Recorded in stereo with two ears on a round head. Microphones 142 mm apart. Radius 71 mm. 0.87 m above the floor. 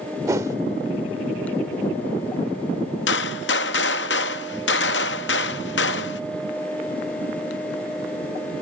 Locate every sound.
0.3 s a whoosh: 20° right (ahead or behind), 0.7 m
3.1 s a gunshot: 85° left, 0.6 m